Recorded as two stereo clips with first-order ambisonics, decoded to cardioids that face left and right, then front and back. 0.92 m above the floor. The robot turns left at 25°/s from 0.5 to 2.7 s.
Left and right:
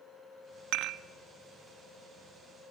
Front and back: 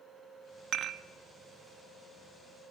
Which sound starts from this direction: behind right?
Dishes clattering, at 0.7 s.